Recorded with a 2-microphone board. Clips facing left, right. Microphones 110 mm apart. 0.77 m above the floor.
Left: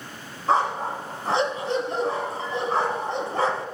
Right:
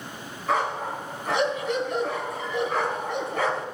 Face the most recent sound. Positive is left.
turn(degrees=35)  # may be behind; listen again after turning